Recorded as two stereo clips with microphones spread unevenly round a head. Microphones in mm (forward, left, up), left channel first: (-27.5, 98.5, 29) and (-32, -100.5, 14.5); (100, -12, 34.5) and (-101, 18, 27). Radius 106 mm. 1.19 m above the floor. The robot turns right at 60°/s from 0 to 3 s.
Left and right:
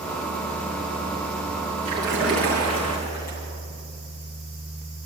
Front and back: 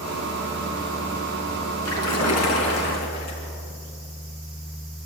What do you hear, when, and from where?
1.9 s a splash: 30° right, 5 m; by 3.5 s 40° left, 5 m